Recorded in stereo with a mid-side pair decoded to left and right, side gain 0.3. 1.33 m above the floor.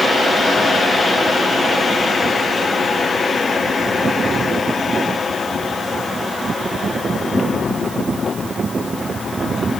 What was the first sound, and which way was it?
Only background noise.